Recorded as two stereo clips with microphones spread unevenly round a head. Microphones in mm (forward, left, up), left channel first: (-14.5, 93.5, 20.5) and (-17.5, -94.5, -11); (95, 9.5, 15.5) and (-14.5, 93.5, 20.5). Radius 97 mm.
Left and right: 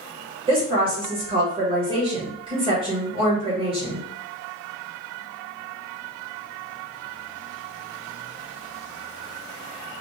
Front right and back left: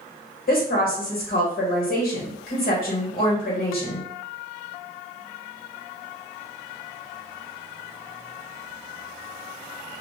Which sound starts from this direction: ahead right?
A woman speaking, at 0.5 s.